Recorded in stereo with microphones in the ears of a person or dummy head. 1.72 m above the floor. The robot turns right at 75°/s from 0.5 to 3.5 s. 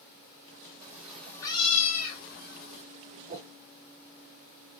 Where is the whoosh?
35° right (ahead or behind), 1.1 m; by 3.5 s 45° right (ahead or behind), 1.1 m.